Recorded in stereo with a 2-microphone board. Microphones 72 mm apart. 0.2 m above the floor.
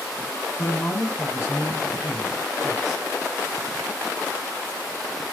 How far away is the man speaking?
About 2.5 m.